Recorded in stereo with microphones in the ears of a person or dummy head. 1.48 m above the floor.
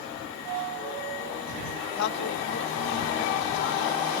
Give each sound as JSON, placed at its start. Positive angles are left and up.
{"t": 2.0, "sound": "a man speaking", "side_deg": 70}